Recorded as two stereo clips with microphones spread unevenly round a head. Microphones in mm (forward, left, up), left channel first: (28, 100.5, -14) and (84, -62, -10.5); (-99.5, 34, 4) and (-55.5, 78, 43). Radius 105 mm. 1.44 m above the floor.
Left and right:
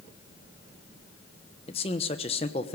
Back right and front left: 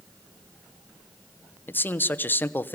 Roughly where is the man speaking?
Behind.